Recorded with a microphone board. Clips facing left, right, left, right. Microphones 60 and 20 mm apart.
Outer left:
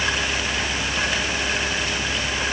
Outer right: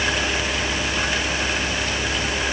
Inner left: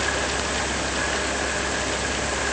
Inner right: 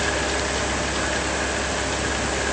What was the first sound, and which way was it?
Only background noise.